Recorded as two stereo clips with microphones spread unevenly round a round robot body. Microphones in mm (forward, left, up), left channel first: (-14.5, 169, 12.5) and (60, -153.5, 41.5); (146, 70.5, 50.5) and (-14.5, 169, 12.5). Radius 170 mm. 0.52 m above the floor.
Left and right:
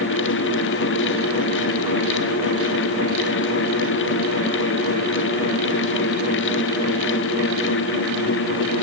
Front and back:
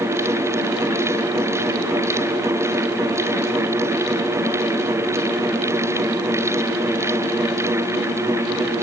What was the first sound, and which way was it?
Only background noise.